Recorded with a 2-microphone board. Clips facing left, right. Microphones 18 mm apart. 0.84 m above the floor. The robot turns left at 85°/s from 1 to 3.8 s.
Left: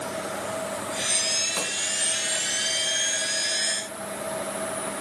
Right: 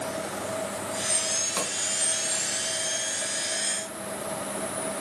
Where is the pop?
5° right (ahead or behind), 4.5 m; by 1.7 s 20° right (ahead or behind), 4.5 m.